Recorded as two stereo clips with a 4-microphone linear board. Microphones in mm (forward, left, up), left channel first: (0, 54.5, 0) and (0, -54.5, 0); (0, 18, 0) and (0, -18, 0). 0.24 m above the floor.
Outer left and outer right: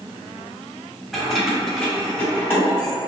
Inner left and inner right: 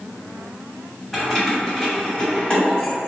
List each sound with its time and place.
1.1 s keys jangling: 5° right (ahead or behind), 1.1 m; by 2.9 s 25° left (ahead or behind), 1.1 m